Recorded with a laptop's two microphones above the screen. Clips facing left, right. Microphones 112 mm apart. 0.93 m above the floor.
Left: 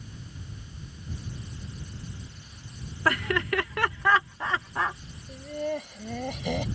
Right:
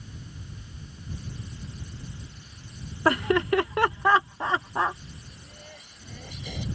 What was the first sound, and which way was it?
Laughter, 25° right (ahead or behind).